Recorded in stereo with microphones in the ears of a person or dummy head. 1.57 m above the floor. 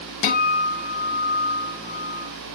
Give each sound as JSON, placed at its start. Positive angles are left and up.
{"t": 0.2, "sound": "a guitar", "side_deg": 50, "distance_m": 0.6}